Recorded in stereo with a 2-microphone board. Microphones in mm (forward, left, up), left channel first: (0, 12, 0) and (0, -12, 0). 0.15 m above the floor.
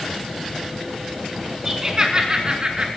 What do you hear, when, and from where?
1.6 s laughter: 25° right (ahead or behind), 1.7 m; by 2.9 s 45° right (ahead or behind), 2.5 m